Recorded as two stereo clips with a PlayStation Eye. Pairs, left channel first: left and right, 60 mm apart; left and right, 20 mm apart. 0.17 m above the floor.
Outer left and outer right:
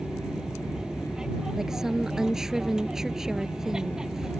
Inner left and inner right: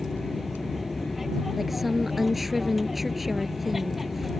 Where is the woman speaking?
10° right (ahead or behind).